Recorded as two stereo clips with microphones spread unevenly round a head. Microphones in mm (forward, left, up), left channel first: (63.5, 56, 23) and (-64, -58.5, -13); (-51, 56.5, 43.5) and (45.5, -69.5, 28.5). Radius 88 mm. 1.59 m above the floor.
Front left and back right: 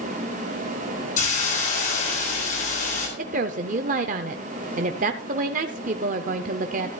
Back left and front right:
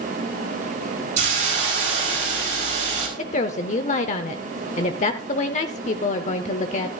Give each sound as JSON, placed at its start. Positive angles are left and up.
{"t": 1.2, "sound": "a hiss", "azimuth_deg": 0, "distance_m": 4.5}
{"t": 3.2, "sound": "a woman speaking", "azimuth_deg": 175, "distance_m": 0.6}